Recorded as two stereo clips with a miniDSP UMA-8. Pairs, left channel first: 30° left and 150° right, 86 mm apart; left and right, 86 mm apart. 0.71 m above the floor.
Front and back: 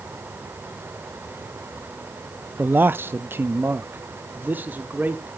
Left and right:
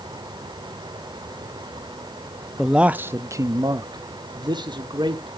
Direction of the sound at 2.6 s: 175° right.